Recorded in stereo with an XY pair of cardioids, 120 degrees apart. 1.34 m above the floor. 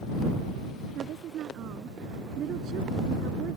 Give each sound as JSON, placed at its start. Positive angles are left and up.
{"t": 0.9, "sound": "a woman speaking", "azimuth_deg": -60}